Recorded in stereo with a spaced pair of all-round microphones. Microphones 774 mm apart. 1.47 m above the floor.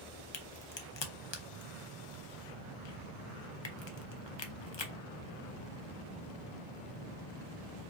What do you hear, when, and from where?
0.3 s a crack: 40° left (ahead or behind), 0.6 m